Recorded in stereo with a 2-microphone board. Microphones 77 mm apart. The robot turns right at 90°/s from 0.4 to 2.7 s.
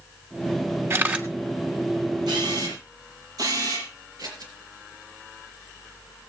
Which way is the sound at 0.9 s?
40° right.